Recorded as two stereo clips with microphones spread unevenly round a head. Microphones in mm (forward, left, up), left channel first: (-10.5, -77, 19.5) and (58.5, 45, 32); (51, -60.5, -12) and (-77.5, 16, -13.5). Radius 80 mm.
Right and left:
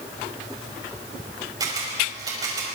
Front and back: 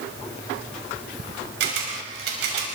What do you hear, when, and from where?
1.6 s a camera shutter: 125° left, 5.5 m